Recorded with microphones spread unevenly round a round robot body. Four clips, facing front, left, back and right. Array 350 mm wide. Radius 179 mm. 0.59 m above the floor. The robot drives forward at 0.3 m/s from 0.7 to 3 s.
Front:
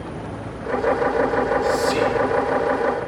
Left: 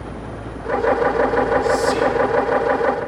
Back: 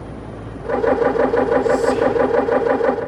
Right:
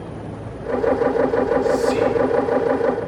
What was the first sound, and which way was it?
Whispering, 25° left.